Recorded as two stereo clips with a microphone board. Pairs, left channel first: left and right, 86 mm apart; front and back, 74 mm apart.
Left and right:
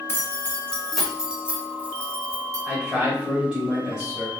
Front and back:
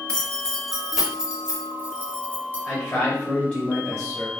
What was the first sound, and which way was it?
Keys jangling, 60° left.